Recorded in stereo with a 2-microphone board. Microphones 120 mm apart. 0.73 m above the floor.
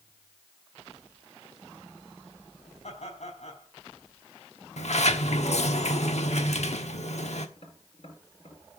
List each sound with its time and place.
2.8 s laughter: 65° left (ahead or behind), 4.5 m
4.8 s a sliding door: 70° left (ahead or behind), 1.2 m
7.6 s tapping: 55° left (ahead or behind), 5 m